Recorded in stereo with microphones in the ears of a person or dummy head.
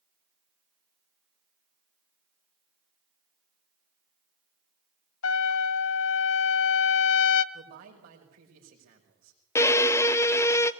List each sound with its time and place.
5.2 s a trumpet: 80° left, 0.8 m
7.5 s a man speaking: 50° right (ahead or behind), 5.5 m
9.6 s a violin: 15° left (ahead or behind), 0.7 m